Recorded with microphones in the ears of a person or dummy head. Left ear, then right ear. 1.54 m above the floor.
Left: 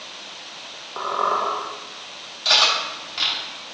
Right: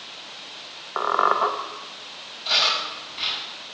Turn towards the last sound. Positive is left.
turn(degrees=80)